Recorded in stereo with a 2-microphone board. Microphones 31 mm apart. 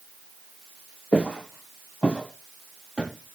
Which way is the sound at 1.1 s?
45° left (ahead or behind).